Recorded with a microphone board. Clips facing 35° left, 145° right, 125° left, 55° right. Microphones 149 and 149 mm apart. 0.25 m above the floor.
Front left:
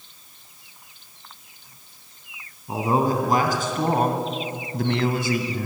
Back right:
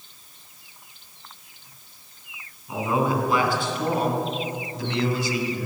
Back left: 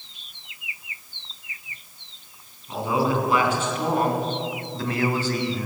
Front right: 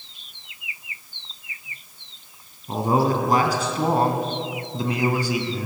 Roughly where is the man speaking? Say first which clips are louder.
Front left 2 dB, front right 3 dB; ahead.